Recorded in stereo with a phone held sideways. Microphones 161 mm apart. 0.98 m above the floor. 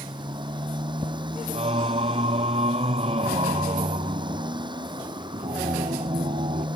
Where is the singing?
40° right (ahead or behind).